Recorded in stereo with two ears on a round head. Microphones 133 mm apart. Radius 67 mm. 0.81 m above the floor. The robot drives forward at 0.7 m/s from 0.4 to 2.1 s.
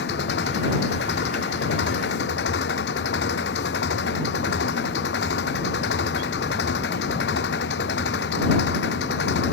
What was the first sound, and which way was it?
An engine running, 80° left.